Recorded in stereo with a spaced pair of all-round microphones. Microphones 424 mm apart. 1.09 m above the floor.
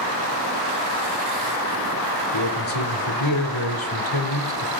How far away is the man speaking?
About 3 m.